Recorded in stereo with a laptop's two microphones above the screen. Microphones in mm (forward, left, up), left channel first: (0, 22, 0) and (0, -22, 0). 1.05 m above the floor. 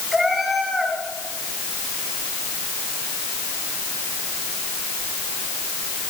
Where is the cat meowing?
5° right (ahead or behind), 6.5 m.